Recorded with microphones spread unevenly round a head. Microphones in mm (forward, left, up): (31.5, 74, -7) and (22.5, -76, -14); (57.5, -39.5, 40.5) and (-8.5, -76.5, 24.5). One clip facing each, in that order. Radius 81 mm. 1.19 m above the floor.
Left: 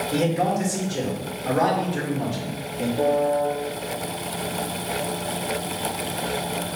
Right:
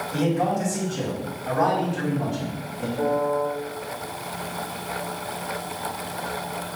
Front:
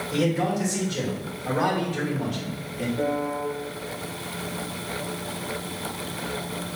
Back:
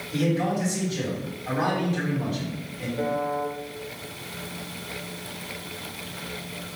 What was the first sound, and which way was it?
A man speaking, 75° left.